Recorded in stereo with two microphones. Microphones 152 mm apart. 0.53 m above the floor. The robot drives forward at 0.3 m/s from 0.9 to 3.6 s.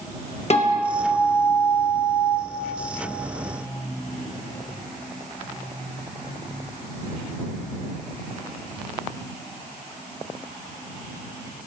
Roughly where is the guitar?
Left.